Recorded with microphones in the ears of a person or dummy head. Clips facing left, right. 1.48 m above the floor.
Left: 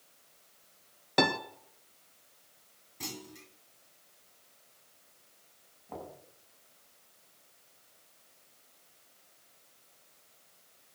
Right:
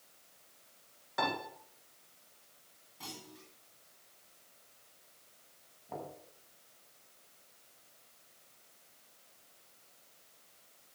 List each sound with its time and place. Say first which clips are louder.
1.2 s a piano: left 7 dB; 75° left (ahead or behind), 1.8 m
3.0 s a clunk: left 5 dB; 30° left (ahead or behind), 3 m
5.9 s knocking: even; 10° right (ahead or behind), 7.5 m